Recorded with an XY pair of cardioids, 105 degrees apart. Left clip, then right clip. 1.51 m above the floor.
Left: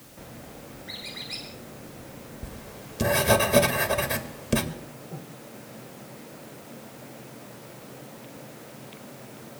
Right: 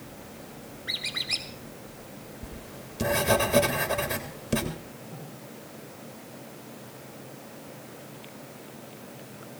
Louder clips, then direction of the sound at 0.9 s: Right 7 dB; 65° right.